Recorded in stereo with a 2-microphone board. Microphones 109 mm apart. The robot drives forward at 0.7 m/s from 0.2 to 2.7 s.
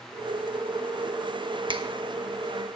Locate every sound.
1.7 s a finger snap: 50° right (ahead or behind), 1.1 m; by 1.8 s 55° right (ahead or behind), 1.0 m